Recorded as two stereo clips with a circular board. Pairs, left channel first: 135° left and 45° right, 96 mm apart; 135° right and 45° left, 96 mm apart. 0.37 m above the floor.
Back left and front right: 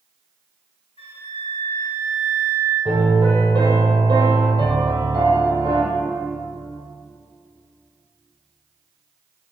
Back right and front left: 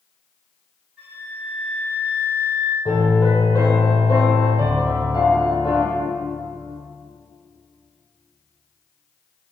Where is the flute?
125° left, 3.5 m.